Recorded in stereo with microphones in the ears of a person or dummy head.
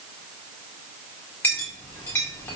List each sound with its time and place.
1.4 s a clink: 5° left (ahead or behind), 1.6 m